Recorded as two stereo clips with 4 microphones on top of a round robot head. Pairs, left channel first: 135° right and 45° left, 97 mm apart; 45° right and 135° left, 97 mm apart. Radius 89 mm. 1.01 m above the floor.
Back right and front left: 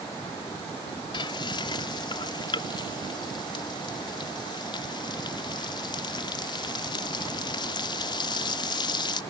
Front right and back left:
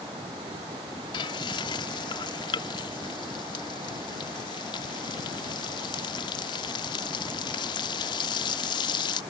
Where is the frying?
90° right.